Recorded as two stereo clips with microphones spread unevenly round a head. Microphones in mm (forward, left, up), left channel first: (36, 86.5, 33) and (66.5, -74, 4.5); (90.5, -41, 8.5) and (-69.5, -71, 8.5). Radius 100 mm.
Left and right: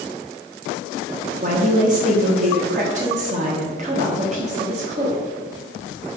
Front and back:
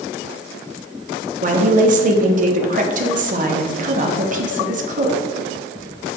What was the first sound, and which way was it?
A woman speaking, 135° right.